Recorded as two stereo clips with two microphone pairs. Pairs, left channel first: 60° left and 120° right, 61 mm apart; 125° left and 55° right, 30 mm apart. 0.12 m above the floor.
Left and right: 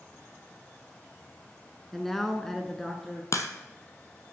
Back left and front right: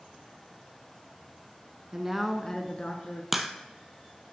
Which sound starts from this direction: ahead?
A man speaking, at 1.9 s.